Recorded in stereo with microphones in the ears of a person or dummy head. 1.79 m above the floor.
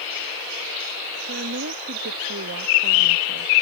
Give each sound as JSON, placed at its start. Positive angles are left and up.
{"t": 1.3, "sound": "a woman speaking", "side_deg": -60}